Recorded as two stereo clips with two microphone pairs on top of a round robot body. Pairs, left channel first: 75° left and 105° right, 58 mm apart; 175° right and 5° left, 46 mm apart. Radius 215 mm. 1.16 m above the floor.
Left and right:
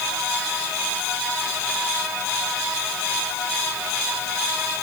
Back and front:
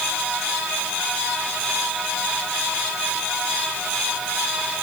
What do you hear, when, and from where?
Only background noise.